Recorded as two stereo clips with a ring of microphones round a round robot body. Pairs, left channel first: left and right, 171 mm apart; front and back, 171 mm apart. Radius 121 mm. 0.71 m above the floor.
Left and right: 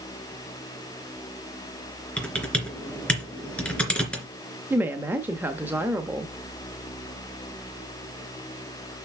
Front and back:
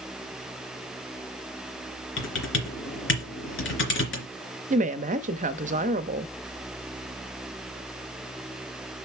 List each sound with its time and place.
2.2 s typing on a keyboard: 5° left, 3 m
4.7 s a woman speaking: 165° right, 0.6 m